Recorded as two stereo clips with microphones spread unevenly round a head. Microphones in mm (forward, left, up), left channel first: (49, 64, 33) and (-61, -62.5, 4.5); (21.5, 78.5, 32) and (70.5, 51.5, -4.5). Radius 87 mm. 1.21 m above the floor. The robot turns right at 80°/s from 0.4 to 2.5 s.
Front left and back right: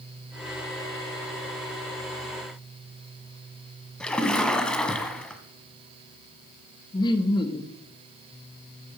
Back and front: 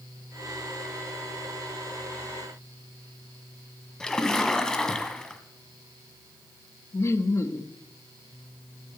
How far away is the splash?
About 1.4 m.